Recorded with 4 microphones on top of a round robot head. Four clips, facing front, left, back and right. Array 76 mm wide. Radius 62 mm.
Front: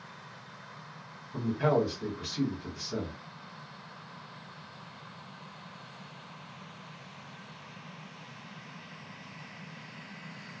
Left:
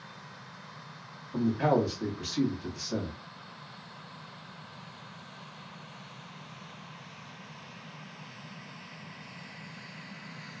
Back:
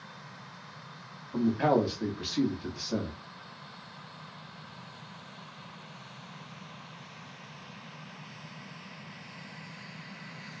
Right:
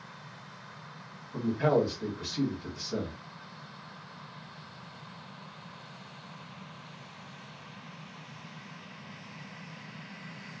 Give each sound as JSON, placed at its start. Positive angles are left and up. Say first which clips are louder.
{"t": 1.3, "sound": "a man speaking", "louder": "even, back 2 dB", "azimuth_deg": 155, "distance_m": 1.4}